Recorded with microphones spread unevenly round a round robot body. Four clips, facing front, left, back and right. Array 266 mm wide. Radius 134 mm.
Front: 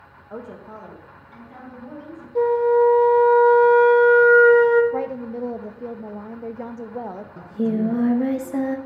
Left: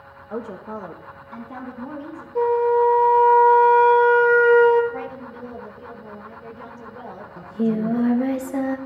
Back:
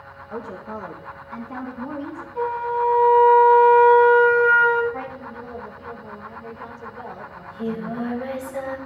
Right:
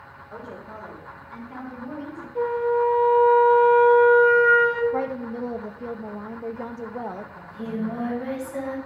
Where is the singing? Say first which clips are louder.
Left 10 dB, front 7 dB; 45° left, 0.8 m.